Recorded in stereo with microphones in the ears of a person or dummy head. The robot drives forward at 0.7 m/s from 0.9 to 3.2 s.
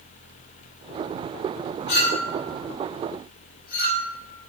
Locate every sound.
1.9 s a clink: 60° left (ahead or behind), 4 m; by 4.1 s 70° left (ahead or behind), 4 m